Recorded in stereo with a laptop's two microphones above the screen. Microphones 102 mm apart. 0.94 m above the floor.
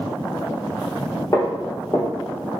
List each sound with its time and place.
1.3 s footsteps: 35° left (ahead or behind), 1.1 m